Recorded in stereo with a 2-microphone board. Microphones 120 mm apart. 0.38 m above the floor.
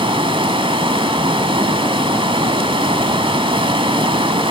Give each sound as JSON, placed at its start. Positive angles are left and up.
{"t": 0.0, "sound": "running water", "side_deg": -45, "distance_m": 1.6}